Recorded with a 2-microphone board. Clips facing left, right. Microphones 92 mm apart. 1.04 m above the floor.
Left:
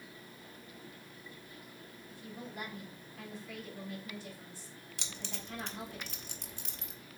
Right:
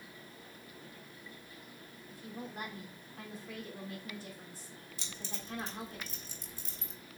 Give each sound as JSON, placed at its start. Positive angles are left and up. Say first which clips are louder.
{"t": 2.1, "sound": "a woman speaking", "louder": "right 2 dB", "side_deg": -40, "distance_m": 3.0}
{"t": 5.0, "sound": "keys jangling", "louder": "left 1 dB", "side_deg": 70, "distance_m": 1.0}